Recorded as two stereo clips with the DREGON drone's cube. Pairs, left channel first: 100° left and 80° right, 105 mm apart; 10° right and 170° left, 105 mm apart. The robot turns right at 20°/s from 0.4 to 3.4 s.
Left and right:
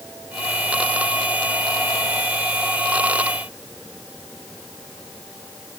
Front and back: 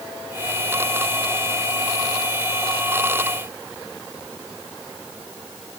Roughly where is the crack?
I don't hear a crack.